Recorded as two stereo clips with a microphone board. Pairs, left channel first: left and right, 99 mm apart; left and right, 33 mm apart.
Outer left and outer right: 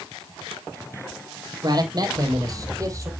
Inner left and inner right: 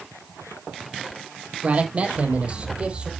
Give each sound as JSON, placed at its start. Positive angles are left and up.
{"t": 1.6, "sound": "a man speaking", "side_deg": -45, "distance_m": 4.0}